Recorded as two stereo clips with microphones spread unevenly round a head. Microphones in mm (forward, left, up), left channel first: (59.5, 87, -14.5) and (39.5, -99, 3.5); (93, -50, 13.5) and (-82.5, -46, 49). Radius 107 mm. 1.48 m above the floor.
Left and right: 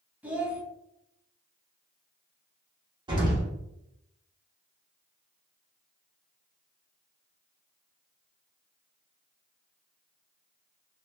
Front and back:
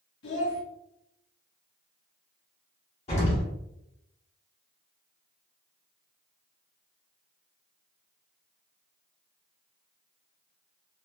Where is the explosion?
55° right, 1.0 m.